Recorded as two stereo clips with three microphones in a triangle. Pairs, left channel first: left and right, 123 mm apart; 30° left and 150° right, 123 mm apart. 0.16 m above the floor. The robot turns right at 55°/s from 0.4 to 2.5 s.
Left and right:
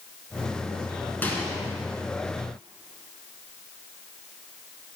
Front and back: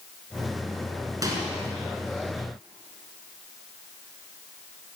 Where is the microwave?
160° left, 1.6 m; by 1.5 s 175° left, 1.6 m.